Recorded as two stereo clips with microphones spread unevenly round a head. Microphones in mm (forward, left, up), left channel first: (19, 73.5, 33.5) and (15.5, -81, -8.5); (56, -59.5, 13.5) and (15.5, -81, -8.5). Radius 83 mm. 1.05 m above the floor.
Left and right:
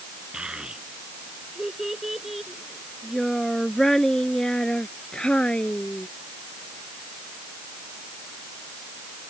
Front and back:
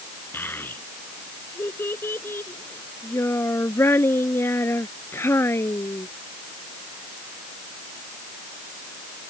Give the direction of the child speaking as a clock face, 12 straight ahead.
12 o'clock.